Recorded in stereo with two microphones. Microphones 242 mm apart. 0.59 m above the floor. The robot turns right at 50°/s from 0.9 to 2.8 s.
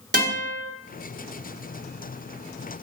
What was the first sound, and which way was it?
A guitar, 45° right (ahead or behind).